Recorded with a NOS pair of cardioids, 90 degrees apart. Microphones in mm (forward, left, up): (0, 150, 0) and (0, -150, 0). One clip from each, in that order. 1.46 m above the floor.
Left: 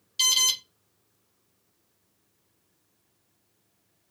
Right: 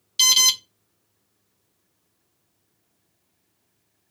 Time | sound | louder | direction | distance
0.2 | an alarm | right 6 dB | 30° right | 0.7 m